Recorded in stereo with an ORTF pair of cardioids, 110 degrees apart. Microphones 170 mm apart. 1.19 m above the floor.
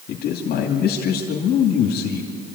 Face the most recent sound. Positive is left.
turn(degrees=65)